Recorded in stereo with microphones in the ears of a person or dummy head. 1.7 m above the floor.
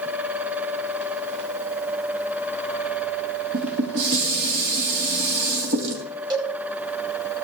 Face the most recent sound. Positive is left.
turn(degrees=-25)  # may be behind; listen again after turning